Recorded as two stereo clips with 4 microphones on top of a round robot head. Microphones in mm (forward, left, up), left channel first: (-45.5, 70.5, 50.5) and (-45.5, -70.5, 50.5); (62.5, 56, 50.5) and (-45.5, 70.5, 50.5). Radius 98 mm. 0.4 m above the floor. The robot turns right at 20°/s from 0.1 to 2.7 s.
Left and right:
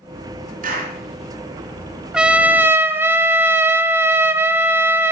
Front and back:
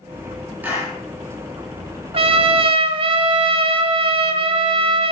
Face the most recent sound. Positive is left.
turn(degrees=-165)